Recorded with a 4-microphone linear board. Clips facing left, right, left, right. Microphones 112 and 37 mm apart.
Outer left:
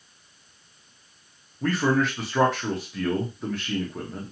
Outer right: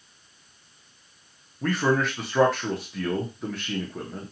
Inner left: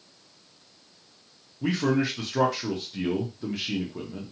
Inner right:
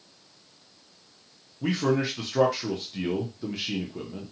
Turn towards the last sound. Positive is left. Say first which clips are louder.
# outer left 1 dB, even
turn(degrees=0)  # may be behind; listen again after turning